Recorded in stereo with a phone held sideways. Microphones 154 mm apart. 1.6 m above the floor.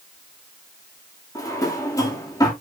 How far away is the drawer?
About 2 m.